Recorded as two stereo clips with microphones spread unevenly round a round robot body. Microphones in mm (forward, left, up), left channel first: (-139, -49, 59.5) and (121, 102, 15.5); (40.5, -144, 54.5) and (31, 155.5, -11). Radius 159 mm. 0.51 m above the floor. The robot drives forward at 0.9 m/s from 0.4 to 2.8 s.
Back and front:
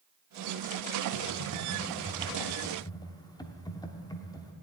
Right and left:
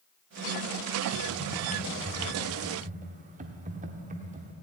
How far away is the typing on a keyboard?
About 1.4 m.